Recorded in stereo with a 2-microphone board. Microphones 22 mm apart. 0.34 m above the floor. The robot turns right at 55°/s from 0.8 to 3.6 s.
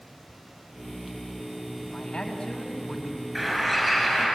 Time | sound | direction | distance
1.9 | a man speaking | 105° left | 3 m
3.4 | a bird | 5° left (ahead or behind) | 6.5 m